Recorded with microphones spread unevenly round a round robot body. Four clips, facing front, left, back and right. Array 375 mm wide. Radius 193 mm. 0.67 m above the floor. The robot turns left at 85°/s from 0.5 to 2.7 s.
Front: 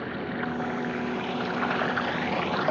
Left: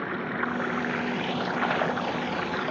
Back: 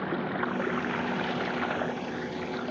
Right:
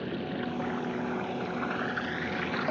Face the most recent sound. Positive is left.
turn(degrees=-5)